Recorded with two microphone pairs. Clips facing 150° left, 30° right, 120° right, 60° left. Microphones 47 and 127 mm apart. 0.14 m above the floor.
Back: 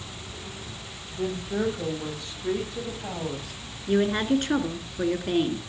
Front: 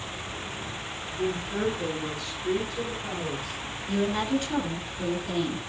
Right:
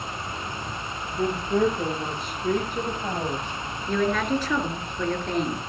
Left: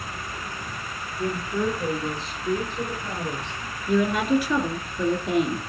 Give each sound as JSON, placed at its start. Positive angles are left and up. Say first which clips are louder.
{"t": 1.1, "sound": "a woman speaking", "louder": "back 1 dB, right 4 dB", "azimuth_deg": -145, "distance_m": 7.5}
{"t": 3.9, "sound": "a woman speaking", "louder": "back 4 dB, left 3 dB", "azimuth_deg": 140, "distance_m": 2.5}